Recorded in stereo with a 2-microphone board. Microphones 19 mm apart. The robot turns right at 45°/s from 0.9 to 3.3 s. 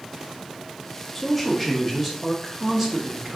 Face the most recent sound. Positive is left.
turn(degrees=-25)  # may be behind; listen again after turning